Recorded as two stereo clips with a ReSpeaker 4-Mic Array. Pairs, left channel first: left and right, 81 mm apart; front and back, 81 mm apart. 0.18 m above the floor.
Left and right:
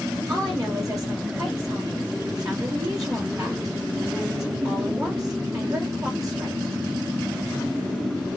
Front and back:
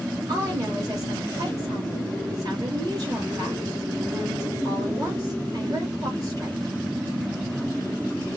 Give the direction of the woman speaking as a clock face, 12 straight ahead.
4 o'clock.